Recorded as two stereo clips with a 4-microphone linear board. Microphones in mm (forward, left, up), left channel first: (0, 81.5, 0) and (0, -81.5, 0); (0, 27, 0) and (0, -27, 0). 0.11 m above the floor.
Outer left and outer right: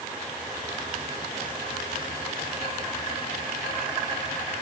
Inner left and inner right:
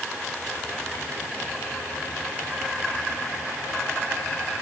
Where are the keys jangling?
No keys jangling in this recording.